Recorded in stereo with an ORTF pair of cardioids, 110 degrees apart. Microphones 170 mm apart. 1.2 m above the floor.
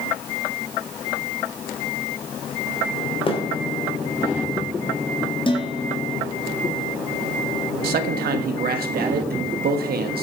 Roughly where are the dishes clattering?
Ahead left.